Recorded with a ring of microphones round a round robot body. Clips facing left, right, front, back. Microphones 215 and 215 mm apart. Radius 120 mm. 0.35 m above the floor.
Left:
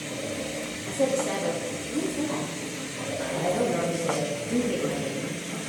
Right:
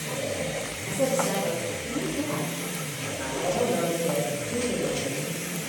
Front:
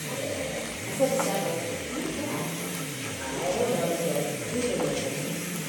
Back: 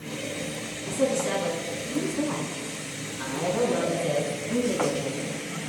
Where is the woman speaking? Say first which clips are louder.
Even, back 1 dB; 160° right, 4 m; by 5.3 s 155° left, 3 m.